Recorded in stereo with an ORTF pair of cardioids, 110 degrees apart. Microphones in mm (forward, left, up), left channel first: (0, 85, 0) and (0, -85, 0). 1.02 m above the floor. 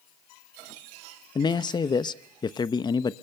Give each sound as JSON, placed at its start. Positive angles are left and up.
{"t": 1.4, "sound": "a man speaking", "azimuth_deg": 25, "distance_m": 0.8}